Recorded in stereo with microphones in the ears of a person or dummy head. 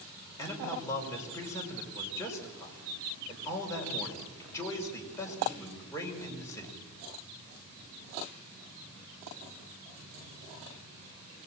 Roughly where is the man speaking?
Centre.